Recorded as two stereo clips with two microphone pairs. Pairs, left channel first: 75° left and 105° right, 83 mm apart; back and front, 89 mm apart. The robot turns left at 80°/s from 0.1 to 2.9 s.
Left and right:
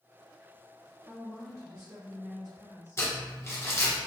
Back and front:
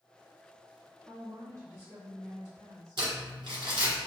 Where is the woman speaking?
20° left, 1.2 m; by 3.0 s 125° right, 1.2 m.